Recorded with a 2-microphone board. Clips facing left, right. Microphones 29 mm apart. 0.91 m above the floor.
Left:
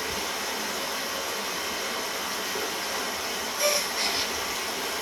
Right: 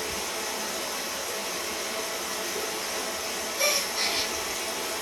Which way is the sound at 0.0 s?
20° left (ahead or behind).